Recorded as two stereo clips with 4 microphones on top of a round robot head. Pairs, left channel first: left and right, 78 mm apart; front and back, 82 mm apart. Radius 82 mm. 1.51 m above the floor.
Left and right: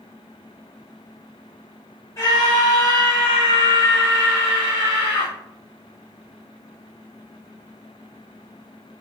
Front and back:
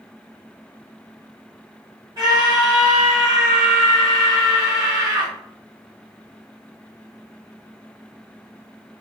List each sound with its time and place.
2.2 s a scream: 130° left, 1.6 m